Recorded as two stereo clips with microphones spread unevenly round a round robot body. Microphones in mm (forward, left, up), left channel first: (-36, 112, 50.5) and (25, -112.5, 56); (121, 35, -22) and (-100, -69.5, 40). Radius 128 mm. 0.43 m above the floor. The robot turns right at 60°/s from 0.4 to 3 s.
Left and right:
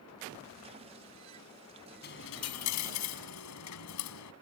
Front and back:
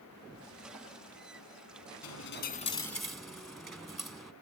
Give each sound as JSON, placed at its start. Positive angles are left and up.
{"t": 2.0, "sound": "a dropped coin", "azimuth_deg": 55}